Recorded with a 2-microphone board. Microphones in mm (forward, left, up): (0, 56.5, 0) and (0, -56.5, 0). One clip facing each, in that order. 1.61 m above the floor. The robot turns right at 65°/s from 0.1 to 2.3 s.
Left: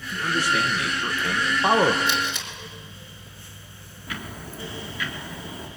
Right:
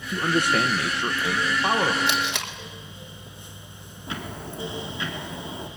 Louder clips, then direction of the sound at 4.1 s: Right 2 dB; 25° right (ahead or behind).